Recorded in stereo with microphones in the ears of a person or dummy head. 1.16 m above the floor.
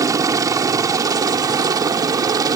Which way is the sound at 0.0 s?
20° right (ahead or behind).